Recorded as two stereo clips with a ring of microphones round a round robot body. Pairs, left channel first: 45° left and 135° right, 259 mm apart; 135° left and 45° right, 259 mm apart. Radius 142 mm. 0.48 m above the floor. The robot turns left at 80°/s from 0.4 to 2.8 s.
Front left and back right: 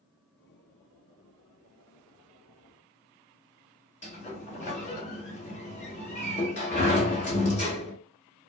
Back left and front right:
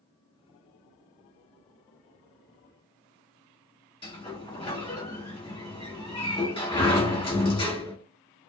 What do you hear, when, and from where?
4.0 s a sliding door: 80° left, 1.3 m